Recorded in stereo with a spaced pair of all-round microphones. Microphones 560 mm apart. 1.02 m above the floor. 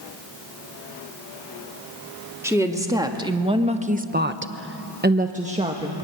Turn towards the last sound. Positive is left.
turn(degrees=-10)  # may be behind; listen again after turning